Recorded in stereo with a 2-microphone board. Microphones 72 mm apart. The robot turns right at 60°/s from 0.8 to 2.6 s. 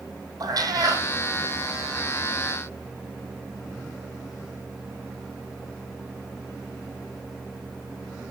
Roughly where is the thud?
I don't hear a thud.